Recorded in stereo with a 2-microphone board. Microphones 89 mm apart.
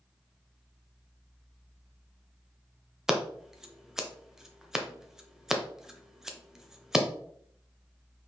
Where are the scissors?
5° right (ahead or behind), 0.7 m.